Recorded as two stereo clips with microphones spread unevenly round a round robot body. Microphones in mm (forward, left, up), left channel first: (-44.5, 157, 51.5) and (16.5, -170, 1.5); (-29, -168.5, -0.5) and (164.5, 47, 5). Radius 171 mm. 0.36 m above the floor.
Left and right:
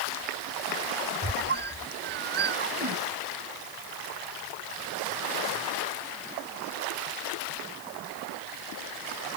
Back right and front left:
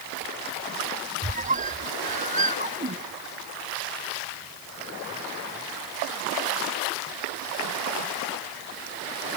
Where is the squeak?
15° right.